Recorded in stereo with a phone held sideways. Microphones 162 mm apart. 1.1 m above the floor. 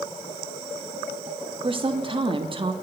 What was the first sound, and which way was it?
A woman speaking, 30° right (ahead or behind).